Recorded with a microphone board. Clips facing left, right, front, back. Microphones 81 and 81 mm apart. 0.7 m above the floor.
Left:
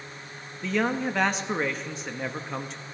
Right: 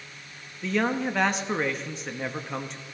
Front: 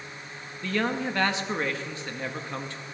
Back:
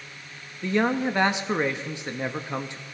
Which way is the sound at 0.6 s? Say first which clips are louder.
Even, back 4 dB; 175° right.